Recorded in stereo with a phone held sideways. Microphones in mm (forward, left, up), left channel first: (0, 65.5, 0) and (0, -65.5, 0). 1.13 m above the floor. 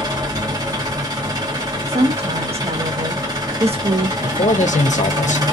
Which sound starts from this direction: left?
A man speaking, at 4.2 s.